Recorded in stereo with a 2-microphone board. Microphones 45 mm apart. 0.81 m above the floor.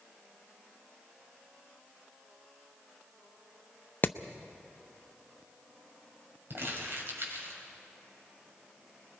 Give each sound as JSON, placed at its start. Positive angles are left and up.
{"t": 4.0, "sound": "hammering", "side_deg": 45, "distance_m": 0.6}
{"t": 6.5, "sound": "crumpling", "side_deg": -55, "distance_m": 4.5}